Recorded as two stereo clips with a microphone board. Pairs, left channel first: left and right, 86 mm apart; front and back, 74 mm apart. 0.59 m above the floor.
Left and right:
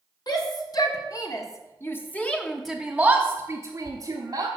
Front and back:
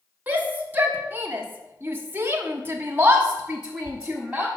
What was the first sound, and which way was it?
A shout, 115° left.